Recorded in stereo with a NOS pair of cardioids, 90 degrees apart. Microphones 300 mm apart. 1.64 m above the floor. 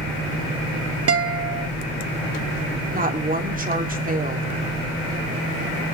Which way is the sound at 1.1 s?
50° right.